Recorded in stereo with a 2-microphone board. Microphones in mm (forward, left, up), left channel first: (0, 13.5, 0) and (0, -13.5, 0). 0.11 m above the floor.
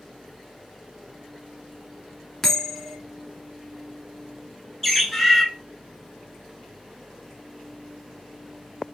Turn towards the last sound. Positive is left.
turn(degrees=10)  # may be behind; listen again after turning